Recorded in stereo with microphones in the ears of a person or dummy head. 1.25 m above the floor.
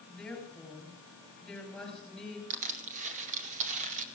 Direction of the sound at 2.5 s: 40° right (ahead or behind).